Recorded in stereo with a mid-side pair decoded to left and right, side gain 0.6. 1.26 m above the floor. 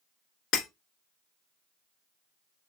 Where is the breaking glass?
70° left, 1.8 m.